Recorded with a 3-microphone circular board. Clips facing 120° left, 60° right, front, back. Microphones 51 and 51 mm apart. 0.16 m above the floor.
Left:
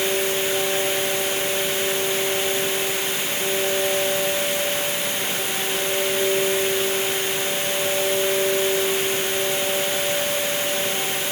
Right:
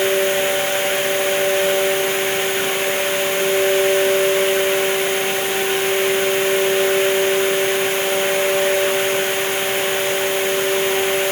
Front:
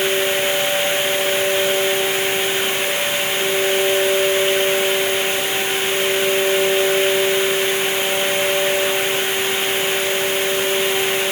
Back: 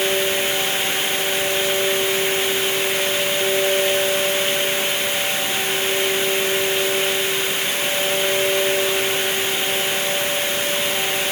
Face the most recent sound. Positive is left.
No sound to turn to.